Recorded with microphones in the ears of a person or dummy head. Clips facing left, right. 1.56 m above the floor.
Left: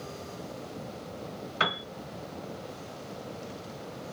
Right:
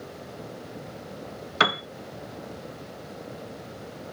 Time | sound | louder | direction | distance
1.6 | a piano | right 7 dB | 65° right (ahead or behind) | 0.6 m